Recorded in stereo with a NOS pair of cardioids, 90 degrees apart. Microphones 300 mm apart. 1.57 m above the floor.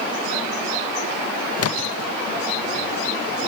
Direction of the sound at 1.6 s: 55° left.